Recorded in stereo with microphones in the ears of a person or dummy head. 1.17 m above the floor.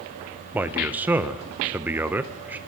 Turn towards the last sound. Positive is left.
turn(degrees=-10)  # may be behind; listen again after turning